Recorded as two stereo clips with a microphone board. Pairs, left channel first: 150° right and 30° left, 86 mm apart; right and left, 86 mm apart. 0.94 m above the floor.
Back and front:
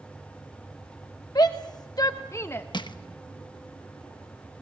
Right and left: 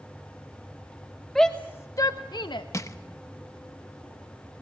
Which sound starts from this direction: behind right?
Crushing, at 2.7 s.